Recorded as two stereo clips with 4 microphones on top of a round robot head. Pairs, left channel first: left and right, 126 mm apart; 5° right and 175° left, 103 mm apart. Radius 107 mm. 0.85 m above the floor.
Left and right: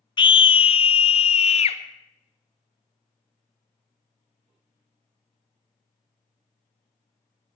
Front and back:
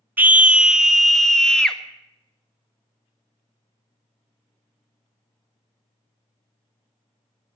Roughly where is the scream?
Left.